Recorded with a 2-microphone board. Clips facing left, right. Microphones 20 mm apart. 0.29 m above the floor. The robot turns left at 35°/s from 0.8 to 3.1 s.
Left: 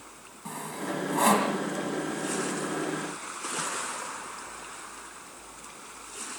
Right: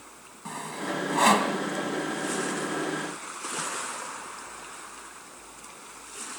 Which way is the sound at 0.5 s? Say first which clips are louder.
Right 1 dB; 15° right (ahead or behind).